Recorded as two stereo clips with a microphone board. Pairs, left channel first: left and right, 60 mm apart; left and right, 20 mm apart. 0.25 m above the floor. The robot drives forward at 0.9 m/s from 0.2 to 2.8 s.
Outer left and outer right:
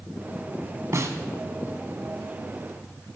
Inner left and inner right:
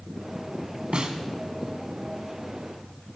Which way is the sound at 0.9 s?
55° right (ahead or behind).